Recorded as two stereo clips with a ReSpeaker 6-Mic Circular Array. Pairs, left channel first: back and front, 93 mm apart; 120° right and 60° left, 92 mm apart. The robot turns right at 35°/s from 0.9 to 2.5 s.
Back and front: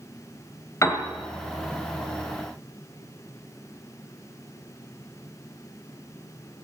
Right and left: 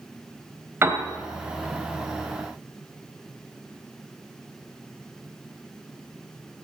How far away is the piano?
About 2 m.